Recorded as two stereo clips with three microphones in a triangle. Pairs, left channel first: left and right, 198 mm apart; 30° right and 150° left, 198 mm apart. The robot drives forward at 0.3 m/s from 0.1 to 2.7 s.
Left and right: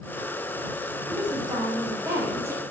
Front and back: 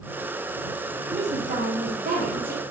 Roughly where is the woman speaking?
Behind right.